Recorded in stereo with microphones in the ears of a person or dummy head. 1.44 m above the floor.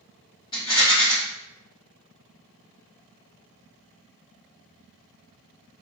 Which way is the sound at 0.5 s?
20° left (ahead or behind).